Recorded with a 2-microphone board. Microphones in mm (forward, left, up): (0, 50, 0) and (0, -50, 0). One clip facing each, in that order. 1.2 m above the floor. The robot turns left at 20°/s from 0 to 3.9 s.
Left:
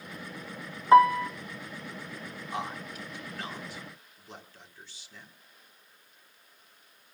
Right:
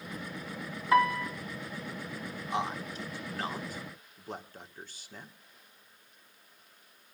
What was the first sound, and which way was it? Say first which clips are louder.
A piano: left 7 dB; 30° left (ahead or behind).